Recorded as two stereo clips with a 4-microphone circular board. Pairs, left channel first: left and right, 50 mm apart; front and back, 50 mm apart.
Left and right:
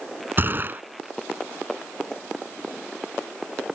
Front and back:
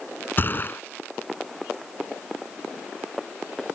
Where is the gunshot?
45° right.